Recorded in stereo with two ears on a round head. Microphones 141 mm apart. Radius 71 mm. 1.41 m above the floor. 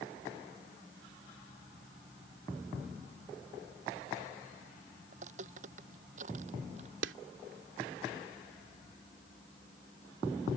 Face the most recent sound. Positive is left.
turn(degrees=-90)